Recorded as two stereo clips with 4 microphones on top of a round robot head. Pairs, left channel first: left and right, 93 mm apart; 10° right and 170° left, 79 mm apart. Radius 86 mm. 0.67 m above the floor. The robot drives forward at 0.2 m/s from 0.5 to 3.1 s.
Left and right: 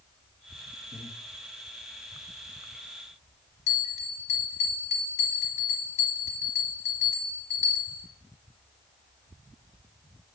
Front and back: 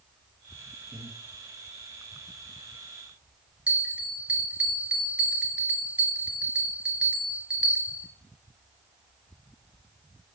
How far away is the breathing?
About 1.2 m.